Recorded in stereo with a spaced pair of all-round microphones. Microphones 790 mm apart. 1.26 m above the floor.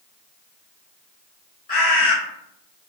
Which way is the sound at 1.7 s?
50° left (ahead or behind).